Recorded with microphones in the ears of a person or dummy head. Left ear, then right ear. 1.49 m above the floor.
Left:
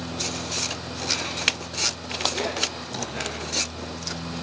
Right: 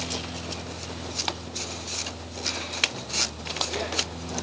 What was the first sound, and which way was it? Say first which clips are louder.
A fan: left 2 dB; 75° left (ahead or behind).